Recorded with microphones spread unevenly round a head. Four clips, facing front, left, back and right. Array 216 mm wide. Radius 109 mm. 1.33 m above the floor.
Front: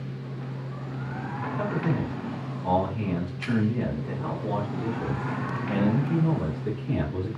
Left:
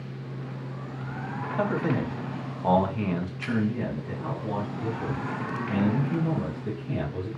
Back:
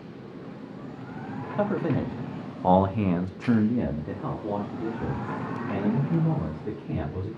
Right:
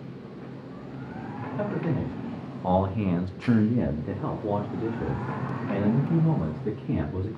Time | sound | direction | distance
1.6 | a man speaking | 150° left | 1.2 m